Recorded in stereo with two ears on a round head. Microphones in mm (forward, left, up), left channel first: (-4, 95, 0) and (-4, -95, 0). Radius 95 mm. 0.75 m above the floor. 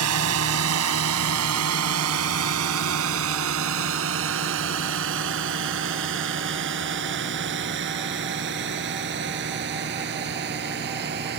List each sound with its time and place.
0.0 s a drone: 80° right; by 11.4 s 45° right (ahead or behind)